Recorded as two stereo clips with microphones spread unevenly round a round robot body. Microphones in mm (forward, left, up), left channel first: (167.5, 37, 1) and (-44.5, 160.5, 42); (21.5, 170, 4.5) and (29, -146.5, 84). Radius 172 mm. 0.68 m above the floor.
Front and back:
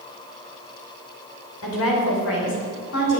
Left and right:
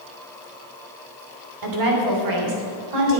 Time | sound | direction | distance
1.6 | a woman speaking | 60° right | 3 m